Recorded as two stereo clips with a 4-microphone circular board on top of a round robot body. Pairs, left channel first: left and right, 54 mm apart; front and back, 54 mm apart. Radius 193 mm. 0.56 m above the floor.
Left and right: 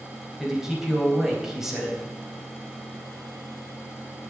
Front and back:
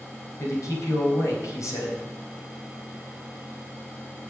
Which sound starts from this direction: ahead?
A man speaking, at 0.4 s.